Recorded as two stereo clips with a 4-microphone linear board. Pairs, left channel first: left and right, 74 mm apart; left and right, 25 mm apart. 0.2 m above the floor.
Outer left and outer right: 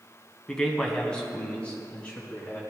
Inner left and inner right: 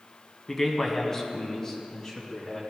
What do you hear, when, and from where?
0.5 s a man speaking: 10° left (ahead or behind), 1.9 m; by 2.6 s 15° left (ahead or behind), 2 m